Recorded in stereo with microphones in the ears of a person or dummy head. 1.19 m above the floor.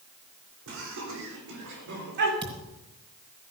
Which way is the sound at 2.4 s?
30° right (ahead or behind).